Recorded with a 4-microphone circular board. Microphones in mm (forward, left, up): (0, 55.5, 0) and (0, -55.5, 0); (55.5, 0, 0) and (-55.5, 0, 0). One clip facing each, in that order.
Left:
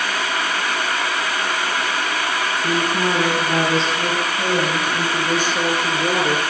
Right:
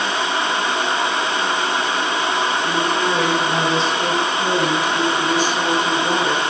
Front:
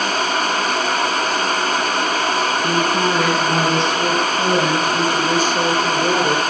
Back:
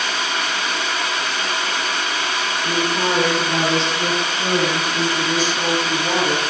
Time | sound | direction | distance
2.6 | a woman speaking | 40° left | 7.5 m